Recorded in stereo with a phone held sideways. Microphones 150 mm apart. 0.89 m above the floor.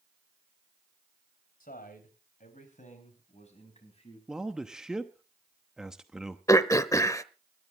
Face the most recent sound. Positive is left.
turn(degrees=20)  # may be behind; listen again after turning